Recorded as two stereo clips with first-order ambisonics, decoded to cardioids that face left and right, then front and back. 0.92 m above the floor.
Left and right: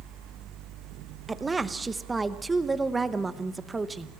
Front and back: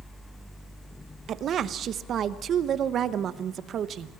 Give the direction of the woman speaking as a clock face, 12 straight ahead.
5 o'clock.